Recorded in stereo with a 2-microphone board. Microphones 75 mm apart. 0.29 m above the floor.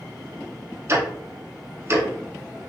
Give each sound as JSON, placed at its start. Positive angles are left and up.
{"t": 0.9, "sound": "ticking", "side_deg": -35, "distance_m": 0.7}